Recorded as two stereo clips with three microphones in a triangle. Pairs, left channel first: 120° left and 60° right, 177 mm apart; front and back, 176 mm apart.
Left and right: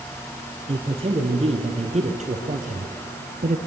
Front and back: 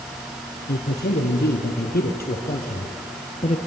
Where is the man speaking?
Straight ahead, 3 m; by 3.6 s 40° right, 1.9 m.